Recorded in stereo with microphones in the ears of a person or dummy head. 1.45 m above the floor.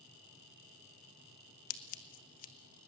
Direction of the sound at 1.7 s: 45° left (ahead or behind).